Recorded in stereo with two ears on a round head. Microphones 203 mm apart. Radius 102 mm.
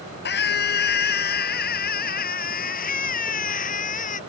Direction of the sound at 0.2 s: 50° left (ahead or behind).